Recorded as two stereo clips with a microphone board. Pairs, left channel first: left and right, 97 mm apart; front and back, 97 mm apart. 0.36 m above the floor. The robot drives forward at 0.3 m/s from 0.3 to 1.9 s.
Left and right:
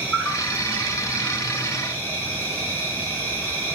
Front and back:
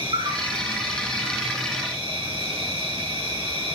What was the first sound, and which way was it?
An insect, 165° left.